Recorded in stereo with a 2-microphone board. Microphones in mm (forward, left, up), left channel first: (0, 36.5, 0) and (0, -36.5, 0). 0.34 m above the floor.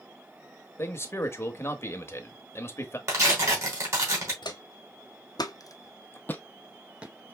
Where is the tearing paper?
40° right (ahead or behind), 3 m.